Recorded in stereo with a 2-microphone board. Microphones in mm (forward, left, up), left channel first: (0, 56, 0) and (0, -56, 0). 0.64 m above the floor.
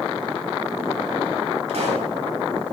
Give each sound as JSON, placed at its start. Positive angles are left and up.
{"t": 1.7, "sound": "a pop", "side_deg": -80, "distance_m": 3.5}